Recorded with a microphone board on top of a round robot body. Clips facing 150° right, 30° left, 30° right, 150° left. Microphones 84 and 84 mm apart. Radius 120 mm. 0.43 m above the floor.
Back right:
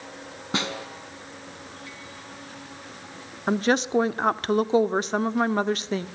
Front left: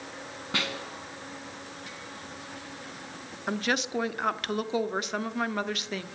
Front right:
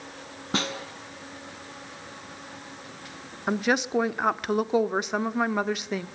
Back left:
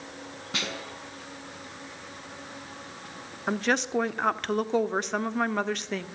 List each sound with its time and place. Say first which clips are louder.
0.5 s a snare drum: back right 4 dB, front right 5 dB; 85° right, 4.5 m
3.5 s a woman speaking: back right 7 dB, front right 2 dB; 110° right, 1.6 m